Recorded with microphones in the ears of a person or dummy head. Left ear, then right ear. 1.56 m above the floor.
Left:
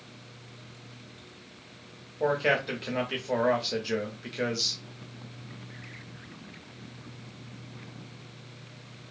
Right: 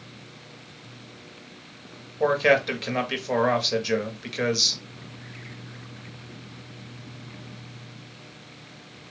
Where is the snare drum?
No snare drum in this recording.